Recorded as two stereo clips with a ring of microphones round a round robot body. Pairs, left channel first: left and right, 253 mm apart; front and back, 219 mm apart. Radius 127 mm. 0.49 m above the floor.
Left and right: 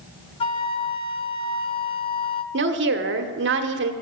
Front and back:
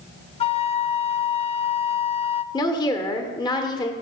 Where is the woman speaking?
70° right, 1.2 m.